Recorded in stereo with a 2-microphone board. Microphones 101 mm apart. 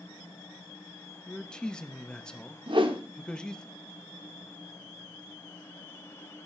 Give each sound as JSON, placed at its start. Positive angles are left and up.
{"t": 1.3, "sound": "a man speaking", "side_deg": 10, "distance_m": 1.0}
{"t": 2.7, "sound": "a whoosh", "side_deg": -55, "distance_m": 1.4}